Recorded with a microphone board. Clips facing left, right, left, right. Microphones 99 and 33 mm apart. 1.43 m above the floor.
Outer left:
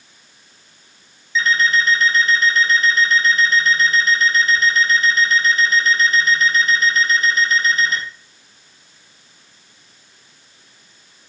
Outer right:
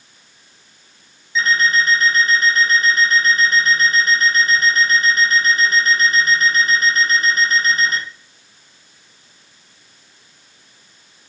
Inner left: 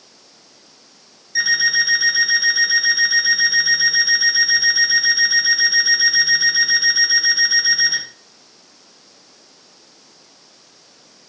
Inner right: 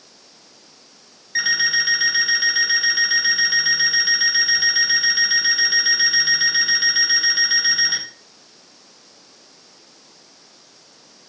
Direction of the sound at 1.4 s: 45° right (ahead or behind).